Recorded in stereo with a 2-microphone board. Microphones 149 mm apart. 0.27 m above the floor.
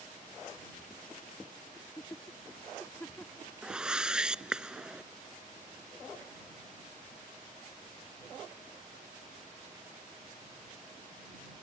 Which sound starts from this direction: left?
Laughter, at 1.8 s.